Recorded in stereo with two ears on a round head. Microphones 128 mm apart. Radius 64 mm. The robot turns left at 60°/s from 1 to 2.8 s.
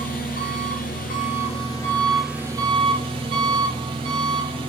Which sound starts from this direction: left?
An engine running, at 0.0 s.